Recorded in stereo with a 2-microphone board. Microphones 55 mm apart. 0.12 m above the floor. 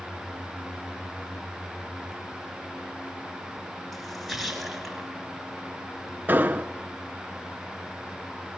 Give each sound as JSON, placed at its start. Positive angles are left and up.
{"t": 3.9, "sound": "a splash", "side_deg": -5, "distance_m": 1.7}
{"t": 6.3, "sound": "an explosion", "side_deg": -35, "distance_m": 0.6}